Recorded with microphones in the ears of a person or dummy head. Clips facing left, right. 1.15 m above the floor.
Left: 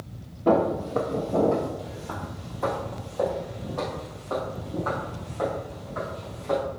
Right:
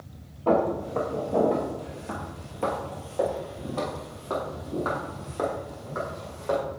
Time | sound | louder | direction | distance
0.5 | footsteps | left 2 dB | 20° left (ahead or behind) | 1.8 m